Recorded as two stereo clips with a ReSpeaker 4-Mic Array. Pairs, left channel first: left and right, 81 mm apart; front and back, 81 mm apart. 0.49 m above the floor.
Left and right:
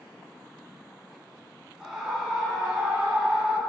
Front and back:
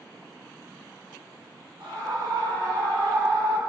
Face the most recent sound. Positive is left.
turn(degrees=-165)